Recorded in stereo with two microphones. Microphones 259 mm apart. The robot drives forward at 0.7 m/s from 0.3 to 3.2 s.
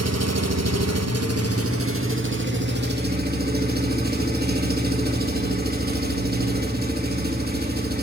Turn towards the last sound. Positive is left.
turn(degrees=-40)  # may be behind; listen again after turning